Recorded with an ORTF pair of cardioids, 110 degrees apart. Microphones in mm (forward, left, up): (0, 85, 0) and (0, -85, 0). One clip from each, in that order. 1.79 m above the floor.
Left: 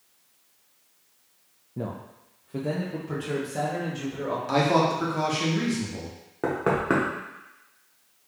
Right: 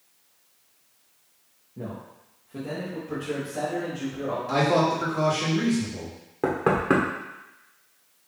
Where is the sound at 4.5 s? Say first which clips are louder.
Even; 35° left, 1.6 m.